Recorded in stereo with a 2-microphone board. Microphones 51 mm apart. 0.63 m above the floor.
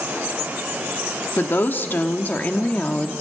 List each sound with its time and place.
1.4 s a woman speaking: 50° left (ahead or behind), 1.4 m; by 3.1 s 20° left (ahead or behind), 1.3 m